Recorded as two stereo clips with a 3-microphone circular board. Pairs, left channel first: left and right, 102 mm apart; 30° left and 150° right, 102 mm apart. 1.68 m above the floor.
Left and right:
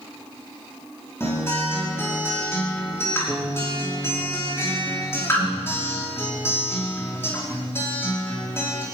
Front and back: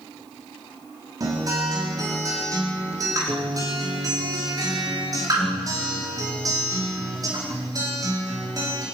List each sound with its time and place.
1.2 s a guitar: 155° left, 5 m